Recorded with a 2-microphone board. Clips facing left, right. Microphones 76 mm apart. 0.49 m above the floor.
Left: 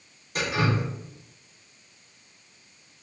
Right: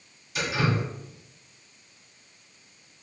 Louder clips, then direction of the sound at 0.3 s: Left 1 dB; 45° left (ahead or behind).